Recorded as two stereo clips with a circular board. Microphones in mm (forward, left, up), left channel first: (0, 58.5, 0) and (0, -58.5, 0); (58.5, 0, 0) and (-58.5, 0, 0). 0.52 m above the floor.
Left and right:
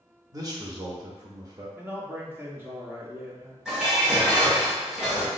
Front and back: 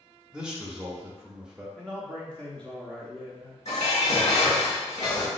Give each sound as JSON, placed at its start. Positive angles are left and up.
{"t": 0.3, "sound": "a man speaking", "azimuth_deg": -105, "distance_m": 0.8}
{"t": 1.8, "sound": "a man speaking", "azimuth_deg": -65, "distance_m": 0.8}
{"t": 3.6, "sound": "dishes clattering", "azimuth_deg": -10, "distance_m": 1.9}